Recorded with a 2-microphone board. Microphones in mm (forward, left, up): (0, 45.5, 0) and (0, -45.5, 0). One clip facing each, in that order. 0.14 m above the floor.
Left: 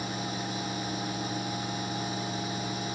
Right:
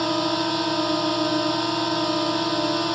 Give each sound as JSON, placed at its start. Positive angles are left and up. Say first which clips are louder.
{"t": 0.0, "sound": "a drone", "louder": "right 12 dB", "side_deg": -70}